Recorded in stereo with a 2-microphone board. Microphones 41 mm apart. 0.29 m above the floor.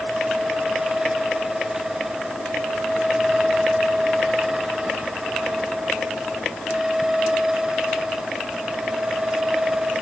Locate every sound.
Only background noise.